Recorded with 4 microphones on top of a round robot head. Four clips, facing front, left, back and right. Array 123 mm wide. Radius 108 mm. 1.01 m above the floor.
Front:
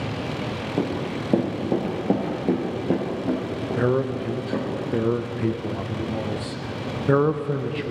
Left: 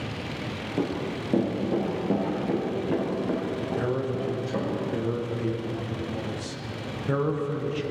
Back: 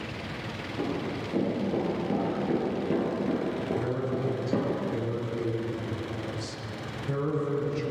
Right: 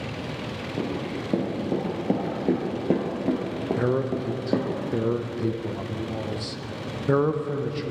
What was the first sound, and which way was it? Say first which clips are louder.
Running footsteps: left 1 dB, front 5 dB; straight ahead.